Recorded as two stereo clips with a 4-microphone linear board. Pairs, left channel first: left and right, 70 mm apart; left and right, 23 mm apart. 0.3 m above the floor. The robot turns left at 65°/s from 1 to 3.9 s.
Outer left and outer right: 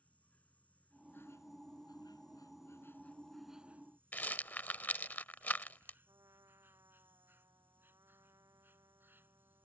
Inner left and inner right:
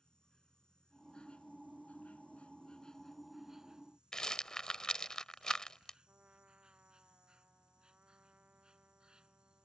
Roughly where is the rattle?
Left.